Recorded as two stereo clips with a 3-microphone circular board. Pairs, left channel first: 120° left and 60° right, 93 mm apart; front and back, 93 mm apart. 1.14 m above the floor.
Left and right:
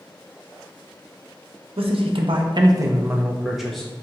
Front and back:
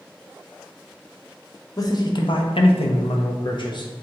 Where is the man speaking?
50° right, 0.7 m; by 3.9 s 35° left, 0.8 m.